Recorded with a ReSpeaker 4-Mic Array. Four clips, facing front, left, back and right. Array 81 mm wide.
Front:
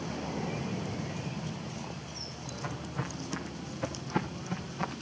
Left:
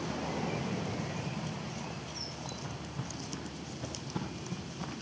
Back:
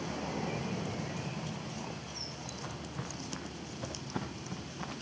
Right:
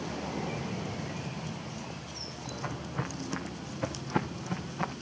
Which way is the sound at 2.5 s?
80° right.